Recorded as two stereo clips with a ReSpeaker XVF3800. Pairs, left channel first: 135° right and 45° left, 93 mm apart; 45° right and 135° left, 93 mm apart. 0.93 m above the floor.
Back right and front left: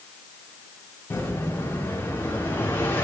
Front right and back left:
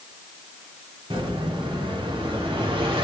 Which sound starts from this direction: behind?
An explosion, at 1.1 s.